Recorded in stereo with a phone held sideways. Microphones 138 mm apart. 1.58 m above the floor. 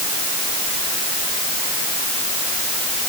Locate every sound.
Only background noise.